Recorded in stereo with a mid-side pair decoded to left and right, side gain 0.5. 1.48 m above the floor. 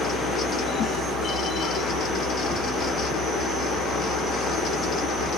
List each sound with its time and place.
0.0 s a fan: 60° left, 1.2 m